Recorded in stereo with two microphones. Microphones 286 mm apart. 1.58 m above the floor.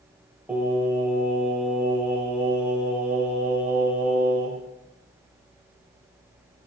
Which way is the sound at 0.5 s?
5° right (ahead or behind).